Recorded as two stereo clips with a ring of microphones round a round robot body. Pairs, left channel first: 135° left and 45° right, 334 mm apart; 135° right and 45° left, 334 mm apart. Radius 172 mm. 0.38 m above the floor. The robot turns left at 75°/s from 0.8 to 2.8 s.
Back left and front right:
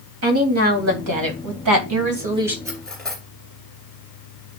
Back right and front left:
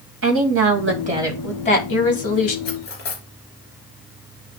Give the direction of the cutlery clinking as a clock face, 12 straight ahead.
4 o'clock.